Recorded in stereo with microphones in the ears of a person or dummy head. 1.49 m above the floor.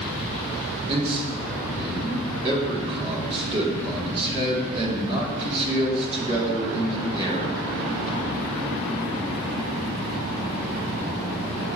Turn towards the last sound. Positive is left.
turn(degrees=-35)  # may be behind; listen again after turning